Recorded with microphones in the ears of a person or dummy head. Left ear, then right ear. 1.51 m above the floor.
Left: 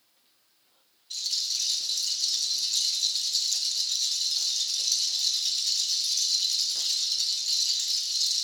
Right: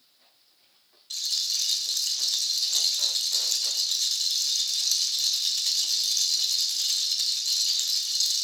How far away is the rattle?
About 0.8 m.